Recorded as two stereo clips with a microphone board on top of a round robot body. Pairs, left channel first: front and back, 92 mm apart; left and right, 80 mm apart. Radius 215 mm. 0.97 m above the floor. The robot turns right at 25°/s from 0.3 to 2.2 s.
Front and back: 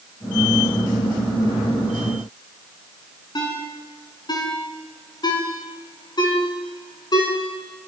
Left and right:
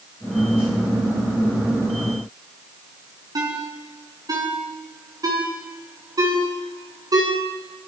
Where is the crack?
I don't hear a crack.